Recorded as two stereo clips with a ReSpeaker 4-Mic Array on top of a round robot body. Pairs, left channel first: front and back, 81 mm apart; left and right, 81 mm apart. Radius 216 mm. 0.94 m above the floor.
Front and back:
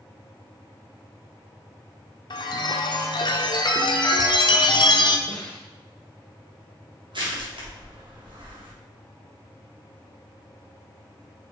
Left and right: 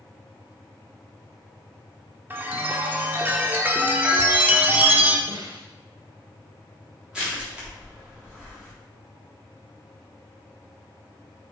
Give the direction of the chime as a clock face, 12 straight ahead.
1 o'clock.